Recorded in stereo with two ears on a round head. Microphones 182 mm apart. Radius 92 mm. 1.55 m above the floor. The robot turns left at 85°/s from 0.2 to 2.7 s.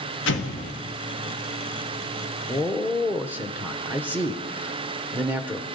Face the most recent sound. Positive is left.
turn(degrees=-10)  # may be behind; listen again after turning